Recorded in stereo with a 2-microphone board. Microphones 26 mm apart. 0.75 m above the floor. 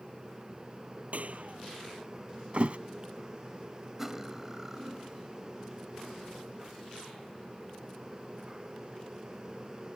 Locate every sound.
1.1 s a clap: 60° right (ahead or behind)
2.5 s a thud: 55° right (ahead or behind)
4.0 s cutlery clinking: 15° right (ahead or behind)